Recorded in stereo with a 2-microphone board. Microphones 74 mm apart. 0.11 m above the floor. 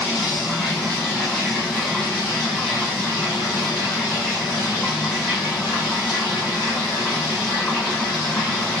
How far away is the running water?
About 1.3 m.